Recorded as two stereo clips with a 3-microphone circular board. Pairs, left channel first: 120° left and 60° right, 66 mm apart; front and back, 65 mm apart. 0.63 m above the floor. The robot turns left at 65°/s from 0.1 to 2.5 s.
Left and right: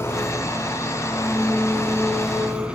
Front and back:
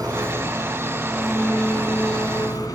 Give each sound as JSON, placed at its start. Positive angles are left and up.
{"t": 0.0, "sound": "an engine running", "azimuth_deg": 170, "distance_m": 3.5}